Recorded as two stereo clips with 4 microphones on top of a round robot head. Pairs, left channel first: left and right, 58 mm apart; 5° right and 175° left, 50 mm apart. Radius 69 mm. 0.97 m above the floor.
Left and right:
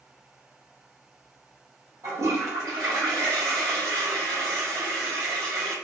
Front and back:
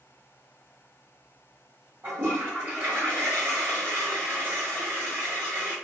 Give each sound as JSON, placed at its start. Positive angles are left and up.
{"t": 2.0, "sound": "a toilet flushing", "azimuth_deg": -120, "distance_m": 1.3}